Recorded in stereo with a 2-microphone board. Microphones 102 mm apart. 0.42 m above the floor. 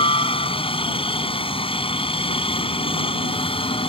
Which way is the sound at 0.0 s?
70° left (ahead or behind).